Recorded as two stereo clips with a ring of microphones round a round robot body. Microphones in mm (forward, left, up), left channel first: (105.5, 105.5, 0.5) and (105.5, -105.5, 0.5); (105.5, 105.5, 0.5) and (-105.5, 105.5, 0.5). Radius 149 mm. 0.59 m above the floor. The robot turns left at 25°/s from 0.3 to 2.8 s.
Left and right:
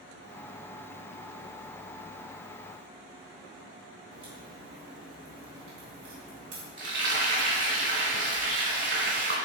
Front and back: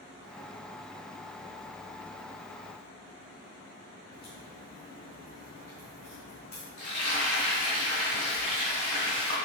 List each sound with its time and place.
4.1 s a crack: 85° right, 3 m
6.8 s frying: 60° right, 3.5 m